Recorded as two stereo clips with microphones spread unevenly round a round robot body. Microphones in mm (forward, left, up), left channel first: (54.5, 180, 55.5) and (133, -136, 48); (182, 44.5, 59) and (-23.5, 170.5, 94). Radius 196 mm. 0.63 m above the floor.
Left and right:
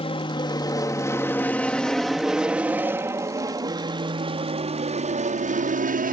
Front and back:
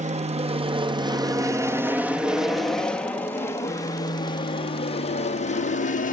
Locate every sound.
0.0 s an aircraft: 145° left; by 6.2 s 25° right